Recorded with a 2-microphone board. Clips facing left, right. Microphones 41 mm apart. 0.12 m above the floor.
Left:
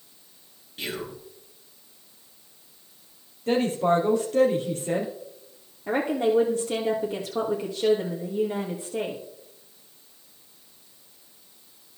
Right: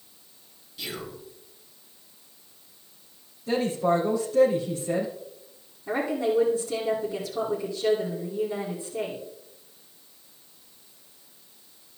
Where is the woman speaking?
65° left (ahead or behind), 3 m.